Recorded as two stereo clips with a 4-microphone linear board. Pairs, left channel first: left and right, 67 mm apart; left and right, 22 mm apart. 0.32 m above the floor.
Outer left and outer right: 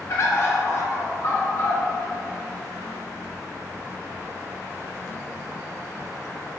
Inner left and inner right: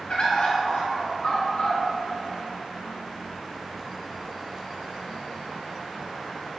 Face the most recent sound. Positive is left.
turn(degrees=45)  # may be behind; listen again after turning